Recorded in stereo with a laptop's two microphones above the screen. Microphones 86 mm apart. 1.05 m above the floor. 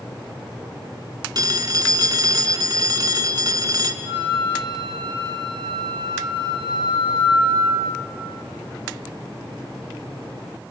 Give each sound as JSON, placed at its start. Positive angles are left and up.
{"t": 1.4, "sound": "a phone ringing", "side_deg": -50, "distance_m": 1.6}
{"t": 4.0, "sound": "a flute", "side_deg": -75, "distance_m": 2.5}